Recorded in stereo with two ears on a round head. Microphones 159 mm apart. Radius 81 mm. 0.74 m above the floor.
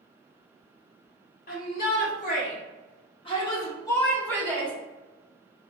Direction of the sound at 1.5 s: 45° left (ahead or behind).